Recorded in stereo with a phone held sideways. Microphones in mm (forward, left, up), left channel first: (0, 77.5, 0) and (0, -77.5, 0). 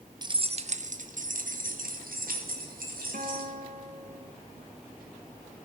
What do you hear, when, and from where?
0.2 s keys jangling: 30° right (ahead or behind), 0.6 m; by 3.5 s 80° right, 3 m
3.1 s a guitar: 60° right (ahead or behind), 1.2 m